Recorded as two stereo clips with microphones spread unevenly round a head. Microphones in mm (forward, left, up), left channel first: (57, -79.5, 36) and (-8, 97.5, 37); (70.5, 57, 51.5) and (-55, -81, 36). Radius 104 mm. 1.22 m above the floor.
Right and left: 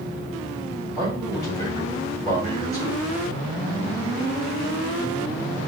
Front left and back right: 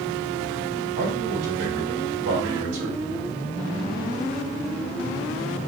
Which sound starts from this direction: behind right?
A man speaking, at 1.0 s.